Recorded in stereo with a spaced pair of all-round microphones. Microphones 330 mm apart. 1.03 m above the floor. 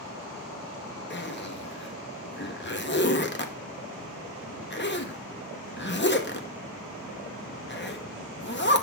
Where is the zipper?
35° left (ahead or behind), 0.9 m.